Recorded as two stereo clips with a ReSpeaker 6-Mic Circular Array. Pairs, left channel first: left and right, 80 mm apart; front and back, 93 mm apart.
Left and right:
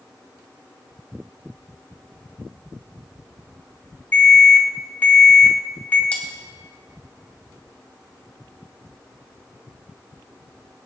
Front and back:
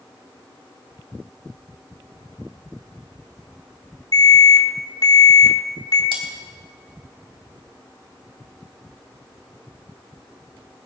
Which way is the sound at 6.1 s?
160° left.